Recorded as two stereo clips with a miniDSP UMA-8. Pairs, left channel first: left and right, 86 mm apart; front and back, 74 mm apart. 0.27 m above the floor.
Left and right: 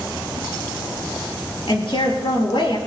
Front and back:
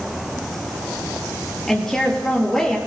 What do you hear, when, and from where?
1.7 s a woman speaking: 85° left, 4.5 m